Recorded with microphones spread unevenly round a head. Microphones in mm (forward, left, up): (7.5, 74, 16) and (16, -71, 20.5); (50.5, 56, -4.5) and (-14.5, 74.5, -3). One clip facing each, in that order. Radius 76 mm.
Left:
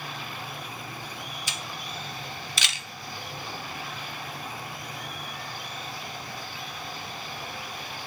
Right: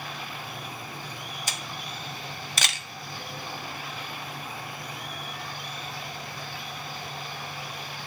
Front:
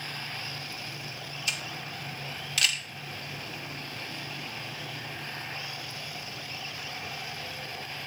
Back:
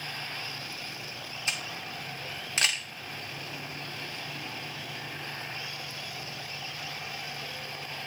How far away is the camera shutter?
About 0.6 m.